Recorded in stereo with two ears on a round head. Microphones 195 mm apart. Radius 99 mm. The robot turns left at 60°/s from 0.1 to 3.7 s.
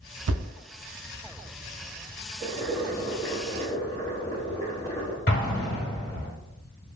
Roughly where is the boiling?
Centre.